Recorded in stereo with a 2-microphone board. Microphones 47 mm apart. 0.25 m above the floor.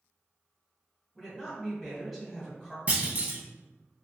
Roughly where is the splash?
No splash in this recording.